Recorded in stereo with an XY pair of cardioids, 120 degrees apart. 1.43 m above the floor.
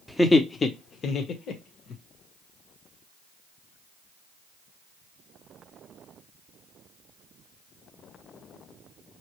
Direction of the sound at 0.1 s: 5° left.